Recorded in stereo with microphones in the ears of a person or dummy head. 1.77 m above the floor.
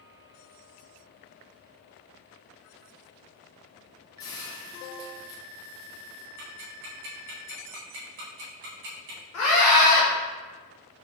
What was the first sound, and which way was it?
A hiss, 20° left (ahead or behind).